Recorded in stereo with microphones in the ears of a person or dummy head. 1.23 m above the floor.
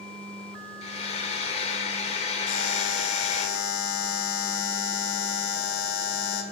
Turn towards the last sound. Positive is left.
turn(degrees=70)  # may be behind; listen again after turning